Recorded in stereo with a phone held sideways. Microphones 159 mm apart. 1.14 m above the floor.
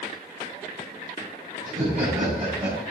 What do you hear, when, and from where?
1.6 s laughter: 45° right (ahead or behind), 5 m; by 2.8 s 40° right (ahead or behind), 5.5 m